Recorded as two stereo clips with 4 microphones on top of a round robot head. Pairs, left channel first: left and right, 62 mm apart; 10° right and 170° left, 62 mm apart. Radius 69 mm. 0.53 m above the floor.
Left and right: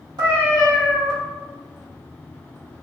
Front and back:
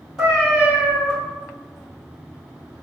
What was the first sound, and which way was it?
A cat meowing, 95° right.